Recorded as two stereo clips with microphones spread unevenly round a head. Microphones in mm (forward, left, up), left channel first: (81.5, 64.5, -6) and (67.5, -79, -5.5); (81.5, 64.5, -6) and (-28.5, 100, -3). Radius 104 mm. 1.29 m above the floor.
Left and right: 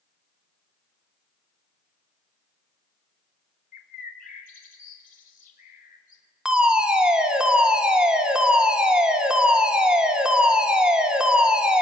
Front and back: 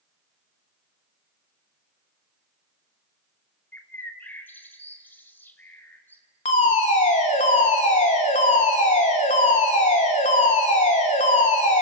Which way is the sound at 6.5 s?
10° right.